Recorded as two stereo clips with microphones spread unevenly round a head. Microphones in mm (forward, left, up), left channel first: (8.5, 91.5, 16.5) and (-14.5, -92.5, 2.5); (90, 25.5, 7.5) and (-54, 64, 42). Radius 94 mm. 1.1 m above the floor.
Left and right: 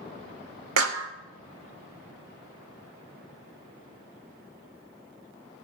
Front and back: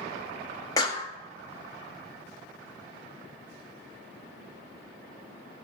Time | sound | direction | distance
0.8 | a clap | 85° right | 1.4 m